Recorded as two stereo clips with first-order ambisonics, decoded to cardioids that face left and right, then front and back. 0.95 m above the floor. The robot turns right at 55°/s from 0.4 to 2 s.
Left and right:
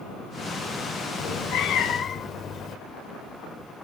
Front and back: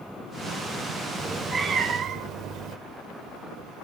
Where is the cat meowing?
95° left, 0.9 m; by 2.8 s 140° left, 0.9 m.